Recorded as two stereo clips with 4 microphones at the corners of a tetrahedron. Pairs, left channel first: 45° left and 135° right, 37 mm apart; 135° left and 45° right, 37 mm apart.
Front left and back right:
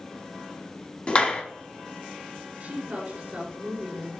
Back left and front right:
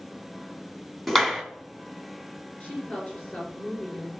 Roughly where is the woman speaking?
Behind.